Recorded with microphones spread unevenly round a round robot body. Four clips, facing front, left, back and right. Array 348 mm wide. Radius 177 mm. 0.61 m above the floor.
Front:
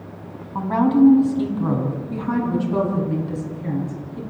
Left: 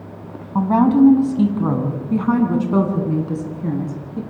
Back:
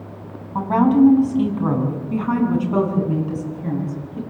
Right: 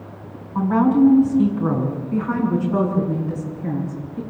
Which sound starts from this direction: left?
A woman speaking, at 0.6 s.